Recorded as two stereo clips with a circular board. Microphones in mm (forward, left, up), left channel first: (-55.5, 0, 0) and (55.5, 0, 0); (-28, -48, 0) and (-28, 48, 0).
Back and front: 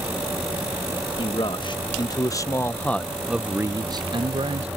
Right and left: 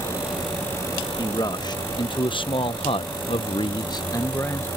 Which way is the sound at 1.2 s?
140° right.